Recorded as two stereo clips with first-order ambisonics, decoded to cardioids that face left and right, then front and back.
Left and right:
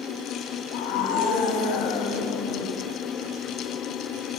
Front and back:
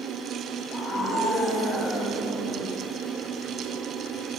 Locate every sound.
0.7 s a scream: 80° left, 6.5 m; by 2.8 s 100° left, 5.5 m